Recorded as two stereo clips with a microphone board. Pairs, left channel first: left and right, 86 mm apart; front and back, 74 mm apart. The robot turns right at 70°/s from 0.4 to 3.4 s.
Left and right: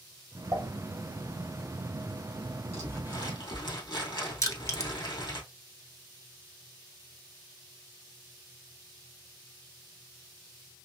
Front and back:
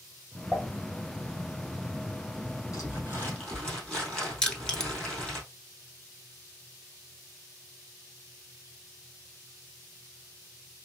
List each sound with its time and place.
0.5 s dishes clattering: 100° right, 2 m; by 0.7 s 85° right, 2 m
2.7 s crumpling: 30° left, 2.5 m; by 5.4 s 80° left, 2.5 m
4.4 s crushing: 70° left, 0.7 m